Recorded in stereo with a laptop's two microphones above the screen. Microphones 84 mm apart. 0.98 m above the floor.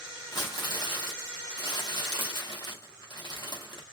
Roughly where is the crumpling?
Left.